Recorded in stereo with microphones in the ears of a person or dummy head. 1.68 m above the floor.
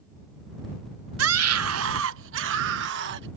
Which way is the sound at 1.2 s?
75° right (ahead or behind).